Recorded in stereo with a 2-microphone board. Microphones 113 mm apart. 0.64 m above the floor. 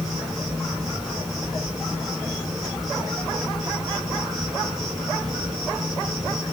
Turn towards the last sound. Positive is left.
turn(degrees=0)  # may be behind; listen again after turning